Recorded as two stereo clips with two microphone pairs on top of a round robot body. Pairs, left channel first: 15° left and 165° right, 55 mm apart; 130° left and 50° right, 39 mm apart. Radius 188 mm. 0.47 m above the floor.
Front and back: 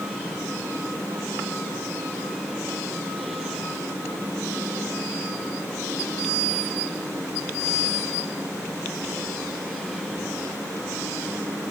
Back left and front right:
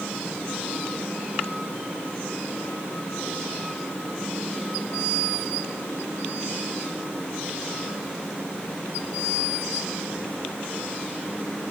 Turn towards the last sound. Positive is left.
No sound to turn to.